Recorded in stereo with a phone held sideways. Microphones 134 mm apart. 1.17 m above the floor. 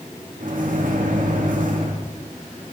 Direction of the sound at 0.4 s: 75° right (ahead or behind).